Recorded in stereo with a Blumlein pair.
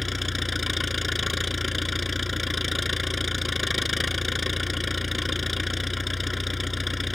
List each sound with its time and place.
0.0 s an engine running: 10° left